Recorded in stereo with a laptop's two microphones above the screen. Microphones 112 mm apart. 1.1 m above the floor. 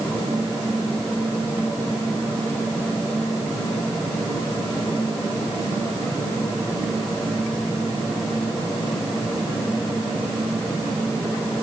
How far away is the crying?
No crying in this recording.